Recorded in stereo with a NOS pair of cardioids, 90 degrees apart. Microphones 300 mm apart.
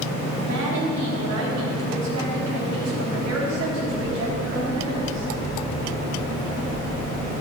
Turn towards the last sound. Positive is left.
turn(degrees=-60)